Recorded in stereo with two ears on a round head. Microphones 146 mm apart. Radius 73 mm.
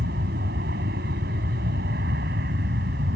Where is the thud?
No thud in this recording.